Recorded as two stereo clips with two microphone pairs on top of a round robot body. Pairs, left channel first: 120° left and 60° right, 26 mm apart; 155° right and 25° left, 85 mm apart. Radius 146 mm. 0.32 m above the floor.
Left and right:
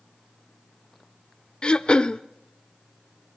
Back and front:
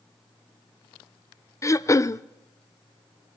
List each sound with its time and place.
1.6 s throat clearing: 165° left, 0.7 m